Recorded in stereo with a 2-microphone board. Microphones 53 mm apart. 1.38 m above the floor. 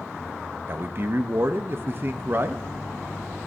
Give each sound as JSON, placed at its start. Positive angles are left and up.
{"t": 0.7, "sound": "a man speaking", "side_deg": -45, "distance_m": 0.6}